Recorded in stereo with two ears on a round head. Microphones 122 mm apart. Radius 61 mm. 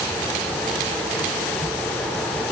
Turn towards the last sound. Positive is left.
No sound to turn to.